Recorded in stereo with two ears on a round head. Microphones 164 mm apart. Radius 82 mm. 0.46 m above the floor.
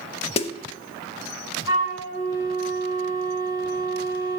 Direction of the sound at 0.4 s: 30° left (ahead or behind).